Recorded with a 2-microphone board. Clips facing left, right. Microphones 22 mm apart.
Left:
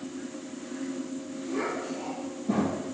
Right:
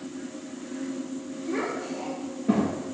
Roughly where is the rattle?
I don't hear a rattle.